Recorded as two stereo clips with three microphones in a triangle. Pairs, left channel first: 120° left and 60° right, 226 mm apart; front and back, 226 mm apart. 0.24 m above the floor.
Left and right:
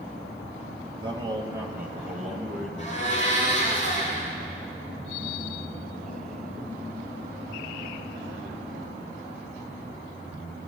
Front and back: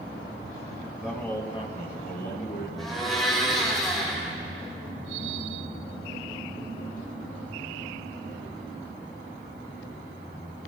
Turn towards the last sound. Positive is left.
turn(degrees=90)